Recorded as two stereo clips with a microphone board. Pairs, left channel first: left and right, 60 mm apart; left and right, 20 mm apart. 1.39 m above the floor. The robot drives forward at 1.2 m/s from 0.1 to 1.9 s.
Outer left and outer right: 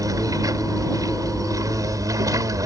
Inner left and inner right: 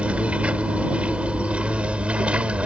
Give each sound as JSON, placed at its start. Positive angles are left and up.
{"t": 0.0, "sound": "an insect", "side_deg": -85}